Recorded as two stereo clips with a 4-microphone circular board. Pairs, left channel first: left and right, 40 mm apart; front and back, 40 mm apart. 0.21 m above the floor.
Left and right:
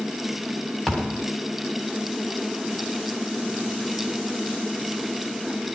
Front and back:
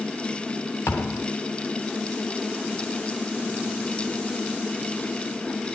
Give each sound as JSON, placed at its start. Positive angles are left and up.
{"t": 0.9, "sound": "a thud", "azimuth_deg": 10, "distance_m": 8.0}